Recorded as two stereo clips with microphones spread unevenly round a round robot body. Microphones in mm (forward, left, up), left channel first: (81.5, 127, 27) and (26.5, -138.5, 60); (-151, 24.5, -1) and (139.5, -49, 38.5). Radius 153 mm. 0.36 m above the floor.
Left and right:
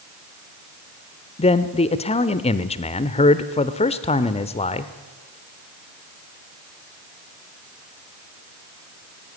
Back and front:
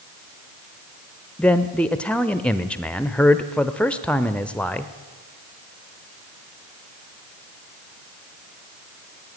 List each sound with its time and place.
1.4 s a man speaking: 100° left, 0.9 m